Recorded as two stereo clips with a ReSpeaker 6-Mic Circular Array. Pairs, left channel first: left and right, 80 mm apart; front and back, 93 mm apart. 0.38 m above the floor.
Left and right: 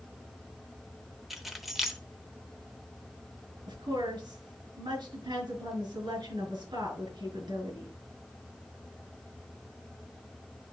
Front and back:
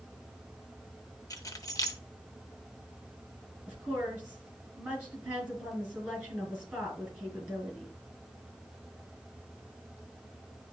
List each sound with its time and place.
1.3 s keys jangling: 5° right, 0.7 m
3.7 s a woman speaking: 105° right, 4.5 m